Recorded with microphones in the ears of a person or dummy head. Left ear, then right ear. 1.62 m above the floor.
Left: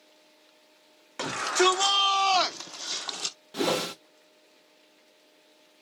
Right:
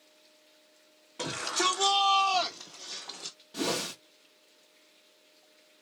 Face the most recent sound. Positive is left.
turn(degrees=30)  # may be behind; listen again after turning